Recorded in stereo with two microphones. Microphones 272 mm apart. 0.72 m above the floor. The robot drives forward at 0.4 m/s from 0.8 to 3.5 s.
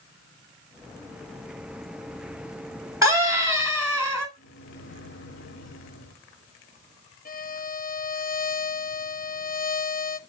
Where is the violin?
30° left (ahead or behind), 0.6 m.